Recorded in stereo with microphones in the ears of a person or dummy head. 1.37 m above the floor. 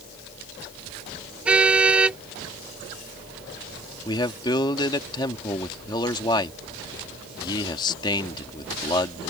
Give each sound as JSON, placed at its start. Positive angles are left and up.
{"t": 1.4, "sound": "a car horn", "side_deg": -10}
{"t": 4.0, "sound": "a man speaking", "side_deg": 20}